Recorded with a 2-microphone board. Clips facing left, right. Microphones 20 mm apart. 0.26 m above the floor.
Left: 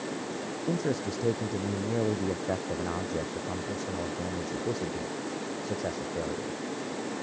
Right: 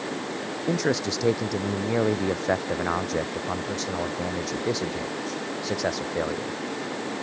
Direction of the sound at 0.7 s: 55° right (ahead or behind).